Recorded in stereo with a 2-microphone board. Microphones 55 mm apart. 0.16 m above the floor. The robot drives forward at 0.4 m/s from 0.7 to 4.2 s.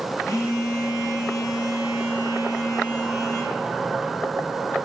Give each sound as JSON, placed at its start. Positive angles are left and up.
{"t": 0.2, "sound": "a phone buzzing", "side_deg": 75, "distance_m": 7.0}